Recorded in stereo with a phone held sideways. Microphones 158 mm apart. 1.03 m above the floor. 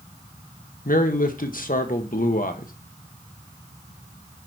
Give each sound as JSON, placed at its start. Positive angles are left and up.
{"t": 0.8, "sound": "a man speaking", "side_deg": 60, "distance_m": 1.0}